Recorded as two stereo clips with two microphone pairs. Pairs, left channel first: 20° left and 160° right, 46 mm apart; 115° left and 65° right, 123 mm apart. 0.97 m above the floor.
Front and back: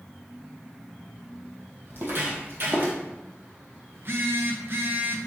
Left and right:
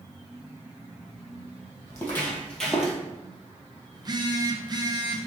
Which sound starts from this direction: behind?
Footsteps, at 1.9 s.